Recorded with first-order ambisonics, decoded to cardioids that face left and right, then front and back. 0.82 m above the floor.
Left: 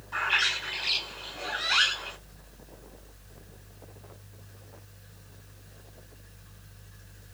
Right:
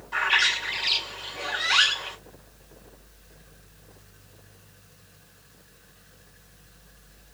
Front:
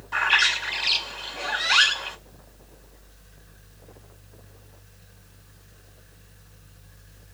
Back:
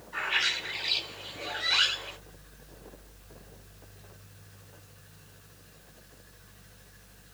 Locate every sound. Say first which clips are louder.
0.1 s a bird: right 4 dB, front 8 dB; 15° right, 1.7 m